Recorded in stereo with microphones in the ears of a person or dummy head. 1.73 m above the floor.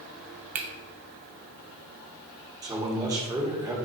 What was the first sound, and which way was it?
A finger snap, 40° right (ahead or behind).